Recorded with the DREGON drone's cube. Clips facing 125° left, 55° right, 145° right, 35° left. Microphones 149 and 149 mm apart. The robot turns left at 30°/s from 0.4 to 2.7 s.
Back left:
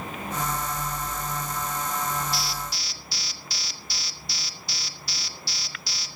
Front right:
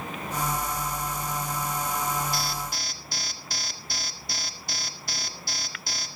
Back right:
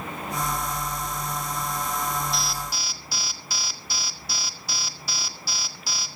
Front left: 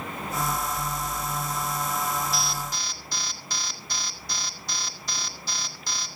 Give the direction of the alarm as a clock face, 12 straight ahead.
2 o'clock.